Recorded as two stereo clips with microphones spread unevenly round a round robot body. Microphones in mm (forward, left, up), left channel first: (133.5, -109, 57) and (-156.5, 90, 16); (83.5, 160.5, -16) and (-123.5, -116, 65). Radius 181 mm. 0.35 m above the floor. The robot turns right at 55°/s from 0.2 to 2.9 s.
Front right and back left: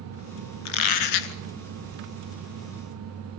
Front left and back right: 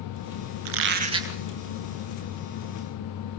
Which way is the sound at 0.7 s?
80° right.